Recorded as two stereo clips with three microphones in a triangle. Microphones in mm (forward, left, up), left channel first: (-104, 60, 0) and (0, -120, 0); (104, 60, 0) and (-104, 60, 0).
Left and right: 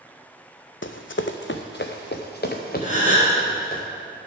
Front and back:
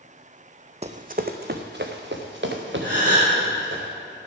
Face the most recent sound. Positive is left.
turn(degrees=165)